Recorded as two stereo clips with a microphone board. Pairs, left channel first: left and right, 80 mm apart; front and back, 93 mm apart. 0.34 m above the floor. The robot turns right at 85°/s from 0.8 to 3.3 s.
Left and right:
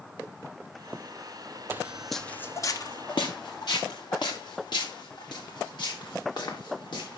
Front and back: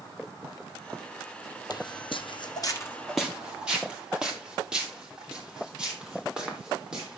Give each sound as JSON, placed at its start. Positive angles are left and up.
{"t": 1.7, "sound": "footsteps", "azimuth_deg": -30, "distance_m": 0.6}